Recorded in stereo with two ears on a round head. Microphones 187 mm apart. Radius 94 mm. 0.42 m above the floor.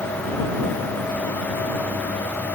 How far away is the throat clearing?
No throat clearing in this recording.